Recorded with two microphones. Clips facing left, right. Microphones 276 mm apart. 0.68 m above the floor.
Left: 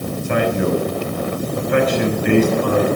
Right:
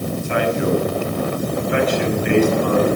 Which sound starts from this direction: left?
A man speaking, at 0.2 s.